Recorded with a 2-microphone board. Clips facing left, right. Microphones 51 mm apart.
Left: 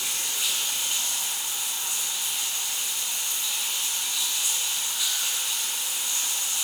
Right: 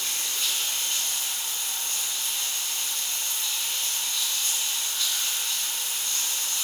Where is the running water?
10° left (ahead or behind), 2 m.